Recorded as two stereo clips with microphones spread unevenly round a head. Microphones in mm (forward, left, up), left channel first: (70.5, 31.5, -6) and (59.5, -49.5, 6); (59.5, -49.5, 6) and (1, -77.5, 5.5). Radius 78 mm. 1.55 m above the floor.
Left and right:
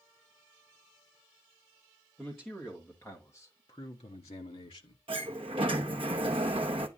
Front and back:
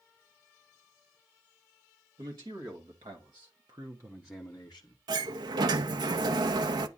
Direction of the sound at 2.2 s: 170° left.